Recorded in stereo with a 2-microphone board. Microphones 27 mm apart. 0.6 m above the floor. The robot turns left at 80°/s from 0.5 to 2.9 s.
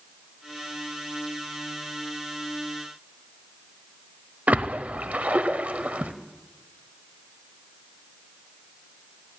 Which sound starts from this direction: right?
A splash, at 4.5 s.